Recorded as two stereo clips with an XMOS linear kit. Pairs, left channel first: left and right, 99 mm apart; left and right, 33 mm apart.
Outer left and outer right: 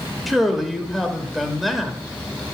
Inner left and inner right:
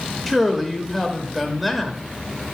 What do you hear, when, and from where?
0.3 s a man speaking: centre (ahead or behind), 1.1 m